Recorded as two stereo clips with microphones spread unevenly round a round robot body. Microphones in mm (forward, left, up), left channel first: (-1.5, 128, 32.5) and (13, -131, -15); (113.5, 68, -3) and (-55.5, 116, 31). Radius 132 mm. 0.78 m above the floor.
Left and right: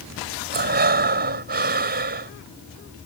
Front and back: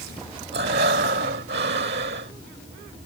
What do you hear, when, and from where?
0.5 s breathing: 140° right